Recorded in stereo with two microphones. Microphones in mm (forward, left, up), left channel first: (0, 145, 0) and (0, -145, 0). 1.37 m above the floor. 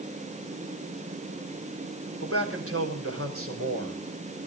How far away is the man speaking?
About 4.5 m.